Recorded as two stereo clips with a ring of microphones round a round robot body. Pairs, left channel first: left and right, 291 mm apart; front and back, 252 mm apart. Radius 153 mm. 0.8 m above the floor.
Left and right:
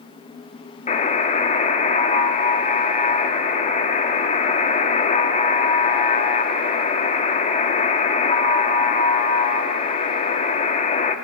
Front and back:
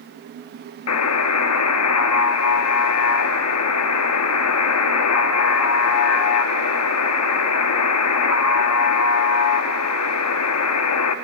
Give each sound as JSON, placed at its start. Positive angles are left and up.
{"t": 0.9, "sound": "a buzzer", "azimuth_deg": 20, "distance_m": 1.0}